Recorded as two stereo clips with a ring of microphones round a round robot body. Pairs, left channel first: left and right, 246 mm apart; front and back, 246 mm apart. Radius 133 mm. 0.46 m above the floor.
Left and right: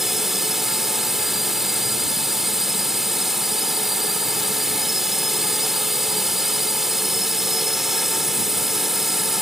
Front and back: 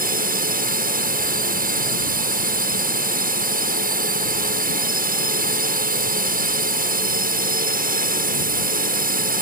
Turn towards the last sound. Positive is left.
turn(degrees=180)